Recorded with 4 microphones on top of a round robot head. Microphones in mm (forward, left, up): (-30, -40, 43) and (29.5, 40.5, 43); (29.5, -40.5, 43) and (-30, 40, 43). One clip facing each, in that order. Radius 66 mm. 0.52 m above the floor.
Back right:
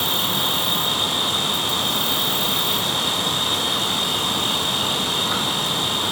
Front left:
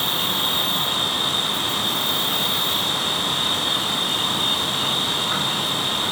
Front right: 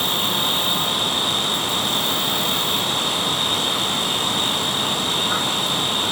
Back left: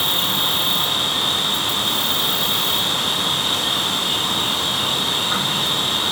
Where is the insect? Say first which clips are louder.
Back right 1 dB, front right 1 dB; straight behind, 3 m.